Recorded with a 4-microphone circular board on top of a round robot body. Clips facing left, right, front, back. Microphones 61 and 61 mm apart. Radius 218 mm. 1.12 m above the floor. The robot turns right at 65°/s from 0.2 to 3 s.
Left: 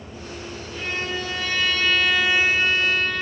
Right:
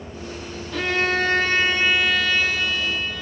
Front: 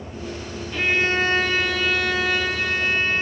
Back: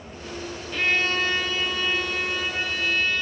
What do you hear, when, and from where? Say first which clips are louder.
0.7 s a violin: right 7 dB, front 3 dB; 90° right, 1.6 m; by 3.2 s 60° left, 1.6 m